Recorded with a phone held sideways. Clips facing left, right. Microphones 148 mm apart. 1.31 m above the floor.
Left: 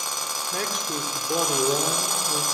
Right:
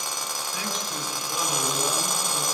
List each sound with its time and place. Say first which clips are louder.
0.5 s a man speaking: left 5 dB; 60° left (ahead or behind), 3 m